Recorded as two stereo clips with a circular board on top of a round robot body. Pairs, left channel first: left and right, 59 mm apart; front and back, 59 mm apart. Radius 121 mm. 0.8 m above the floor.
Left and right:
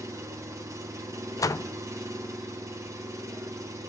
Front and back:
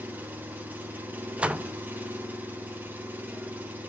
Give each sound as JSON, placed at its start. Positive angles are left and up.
{"t": 0.0, "sound": "an engine running", "azimuth_deg": -120, "distance_m": 1.4}
{"t": 1.4, "sound": "a door slam", "azimuth_deg": 110, "distance_m": 0.5}